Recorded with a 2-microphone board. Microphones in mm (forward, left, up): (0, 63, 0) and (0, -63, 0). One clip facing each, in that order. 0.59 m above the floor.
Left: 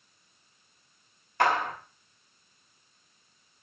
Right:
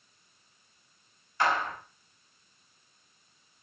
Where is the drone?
No drone in this recording.